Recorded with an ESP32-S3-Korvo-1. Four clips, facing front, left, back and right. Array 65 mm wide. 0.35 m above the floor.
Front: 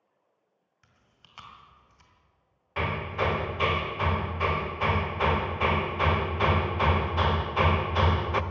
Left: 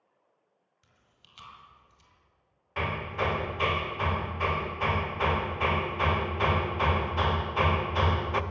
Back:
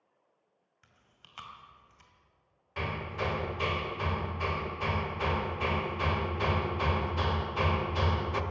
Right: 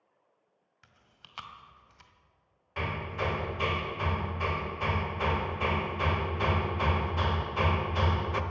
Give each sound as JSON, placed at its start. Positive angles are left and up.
{"t": 0.8, "sound": "chewing", "azimuth_deg": -95, "distance_m": 2.0}
{"t": 2.8, "sound": "hammering", "azimuth_deg": 30, "distance_m": 0.9}